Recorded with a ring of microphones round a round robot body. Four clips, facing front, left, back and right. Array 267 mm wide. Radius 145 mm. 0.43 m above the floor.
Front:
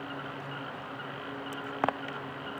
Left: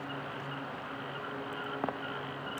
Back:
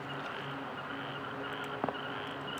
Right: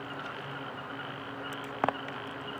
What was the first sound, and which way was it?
Only background noise.